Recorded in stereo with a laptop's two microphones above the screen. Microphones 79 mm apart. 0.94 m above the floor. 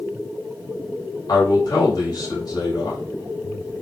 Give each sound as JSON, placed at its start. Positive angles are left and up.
{"t": 1.3, "sound": "a man speaking", "side_deg": 55, "distance_m": 2.0}